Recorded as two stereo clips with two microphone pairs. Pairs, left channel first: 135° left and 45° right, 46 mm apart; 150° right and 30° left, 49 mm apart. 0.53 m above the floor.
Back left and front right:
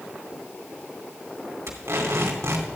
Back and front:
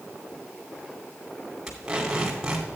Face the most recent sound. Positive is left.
turn(degrees=-40)